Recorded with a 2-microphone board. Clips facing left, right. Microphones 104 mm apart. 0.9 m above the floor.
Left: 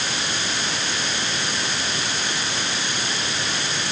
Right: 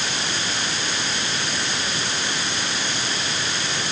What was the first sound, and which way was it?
Only background noise.